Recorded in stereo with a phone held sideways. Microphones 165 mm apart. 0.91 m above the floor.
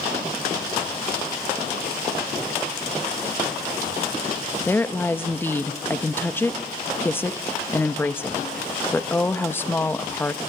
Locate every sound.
4.7 s a woman speaking: 10° left (ahead or behind), 0.9 m